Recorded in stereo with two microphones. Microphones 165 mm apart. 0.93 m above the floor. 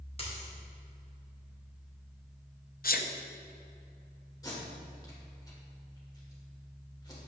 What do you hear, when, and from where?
0.2 s a dropped coin: 35° left (ahead or behind), 2.5 m
2.8 s a sneeze: 65° left (ahead or behind), 0.8 m
4.4 s tape being pulled: 25° left (ahead or behind), 2.5 m